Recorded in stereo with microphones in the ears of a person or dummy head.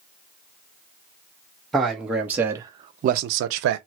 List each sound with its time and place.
1.7 s a man speaking: centre (ahead or behind), 1.3 m; by 3.8 s 70° right (ahead or behind), 0.6 m